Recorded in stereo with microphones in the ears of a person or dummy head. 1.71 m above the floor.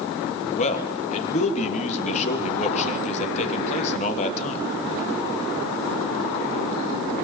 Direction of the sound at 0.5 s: 35° left (ahead or behind).